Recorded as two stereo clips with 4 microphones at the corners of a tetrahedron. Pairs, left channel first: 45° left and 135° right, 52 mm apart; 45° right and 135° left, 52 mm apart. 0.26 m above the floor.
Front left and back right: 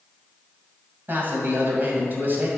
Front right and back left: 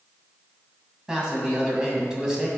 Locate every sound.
1.1 s a man speaking: 155° right, 2 m